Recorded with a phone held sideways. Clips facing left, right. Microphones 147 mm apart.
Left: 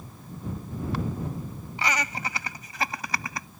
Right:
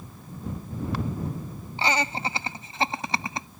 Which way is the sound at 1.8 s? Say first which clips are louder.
Right 4 dB; 30° right (ahead or behind).